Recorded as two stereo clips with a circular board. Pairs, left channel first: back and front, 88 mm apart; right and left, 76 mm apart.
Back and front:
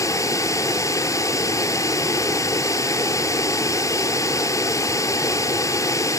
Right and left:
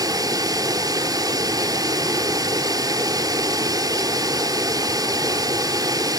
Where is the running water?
130° left, 1.3 m.